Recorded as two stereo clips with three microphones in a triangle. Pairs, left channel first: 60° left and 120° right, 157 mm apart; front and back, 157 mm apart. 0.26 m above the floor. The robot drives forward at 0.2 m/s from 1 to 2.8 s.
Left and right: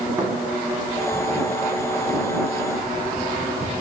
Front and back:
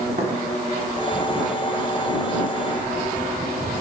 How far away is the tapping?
About 0.8 m.